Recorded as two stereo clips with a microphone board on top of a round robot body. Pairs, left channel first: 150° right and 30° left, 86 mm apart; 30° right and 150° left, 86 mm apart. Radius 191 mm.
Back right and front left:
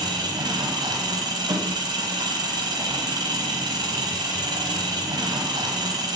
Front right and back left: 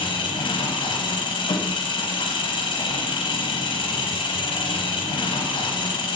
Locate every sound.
0.0 s an engine running: 5° right, 1.6 m